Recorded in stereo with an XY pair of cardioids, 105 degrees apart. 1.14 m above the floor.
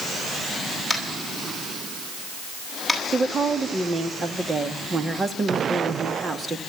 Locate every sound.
0.9 s tapping: 5° right, 9.5 m
3.1 s a woman speaking: 30° right, 2 m